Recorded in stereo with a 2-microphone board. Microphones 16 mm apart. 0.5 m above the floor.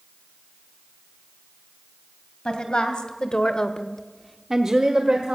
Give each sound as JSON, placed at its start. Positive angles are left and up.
{"t": 2.5, "sound": "a woman speaking", "side_deg": 75, "distance_m": 2.5}